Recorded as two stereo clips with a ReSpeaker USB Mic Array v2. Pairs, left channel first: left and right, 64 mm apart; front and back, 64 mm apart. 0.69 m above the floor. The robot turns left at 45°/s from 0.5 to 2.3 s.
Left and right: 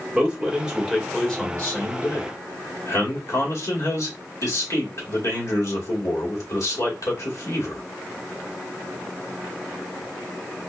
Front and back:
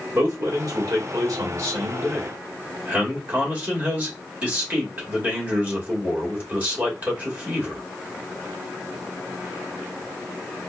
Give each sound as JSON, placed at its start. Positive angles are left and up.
{"t": 0.1, "sound": "a man speaking", "azimuth_deg": -165, "distance_m": 2.0}